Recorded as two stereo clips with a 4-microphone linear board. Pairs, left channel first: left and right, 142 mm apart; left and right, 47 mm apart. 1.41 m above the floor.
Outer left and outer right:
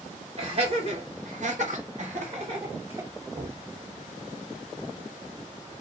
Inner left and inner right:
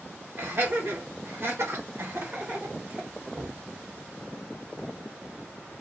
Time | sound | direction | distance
0.4 | laughter | 45° right (ahead or behind) | 1.3 m
3.3 | knocking | 70° right (ahead or behind) | 1.0 m